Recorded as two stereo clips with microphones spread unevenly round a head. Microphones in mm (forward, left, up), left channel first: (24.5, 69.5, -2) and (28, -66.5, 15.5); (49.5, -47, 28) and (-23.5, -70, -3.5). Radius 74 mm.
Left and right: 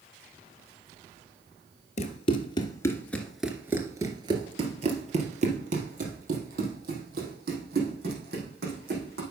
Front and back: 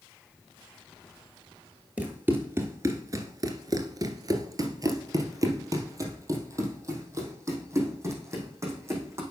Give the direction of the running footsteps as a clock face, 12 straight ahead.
9 o'clock.